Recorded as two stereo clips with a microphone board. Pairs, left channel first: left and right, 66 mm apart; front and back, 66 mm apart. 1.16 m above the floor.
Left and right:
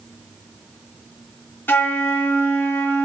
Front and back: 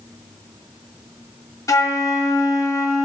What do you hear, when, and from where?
1.7 s a flute: 35° left, 0.6 m